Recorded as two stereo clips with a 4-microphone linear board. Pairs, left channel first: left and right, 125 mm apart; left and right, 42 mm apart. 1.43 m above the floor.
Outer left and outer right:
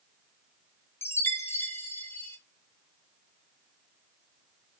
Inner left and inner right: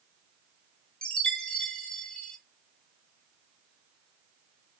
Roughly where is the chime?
Centre.